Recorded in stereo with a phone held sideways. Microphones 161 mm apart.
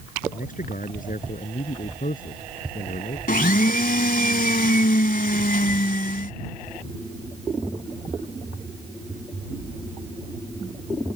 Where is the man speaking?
55° left (ahead or behind).